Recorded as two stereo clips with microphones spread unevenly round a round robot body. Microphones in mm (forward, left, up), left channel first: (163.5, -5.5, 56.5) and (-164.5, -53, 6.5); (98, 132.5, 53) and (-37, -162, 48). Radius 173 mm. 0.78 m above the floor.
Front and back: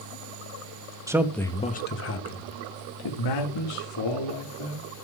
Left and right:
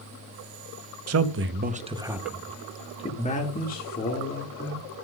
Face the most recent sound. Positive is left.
turn(degrees=10)